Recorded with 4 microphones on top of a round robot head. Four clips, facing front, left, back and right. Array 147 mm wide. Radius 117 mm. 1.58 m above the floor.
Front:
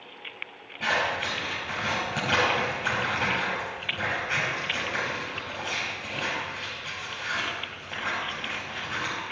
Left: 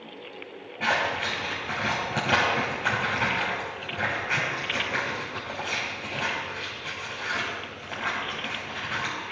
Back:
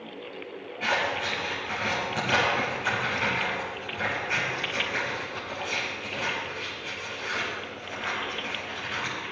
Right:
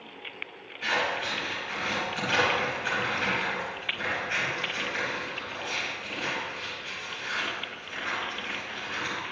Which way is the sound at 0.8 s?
75° left.